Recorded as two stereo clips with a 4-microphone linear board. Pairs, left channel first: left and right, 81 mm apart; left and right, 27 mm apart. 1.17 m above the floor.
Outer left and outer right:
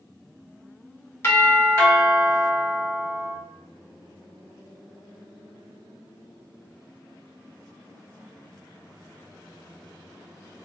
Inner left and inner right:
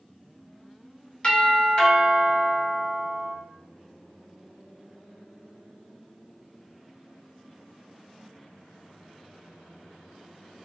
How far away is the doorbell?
About 1.5 m.